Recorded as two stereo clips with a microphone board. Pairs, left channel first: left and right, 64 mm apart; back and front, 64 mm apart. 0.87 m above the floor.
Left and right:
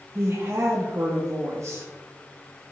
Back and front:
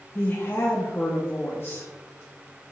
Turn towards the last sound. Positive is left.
turn(degrees=-130)